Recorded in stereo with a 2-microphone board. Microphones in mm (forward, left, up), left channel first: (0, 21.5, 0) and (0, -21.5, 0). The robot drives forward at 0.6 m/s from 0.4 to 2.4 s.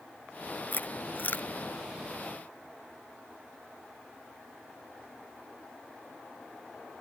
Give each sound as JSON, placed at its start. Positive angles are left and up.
{"t": 0.7, "sound": "chewing", "side_deg": 50}